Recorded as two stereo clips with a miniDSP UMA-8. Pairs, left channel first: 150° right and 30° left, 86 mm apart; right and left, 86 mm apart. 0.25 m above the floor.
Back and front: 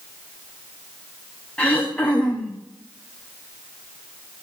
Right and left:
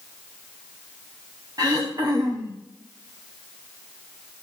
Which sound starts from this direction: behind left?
Throat clearing, at 1.6 s.